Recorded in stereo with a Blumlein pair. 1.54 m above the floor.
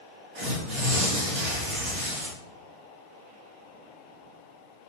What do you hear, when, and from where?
0.3 s tearing paper: 35° right, 2.5 m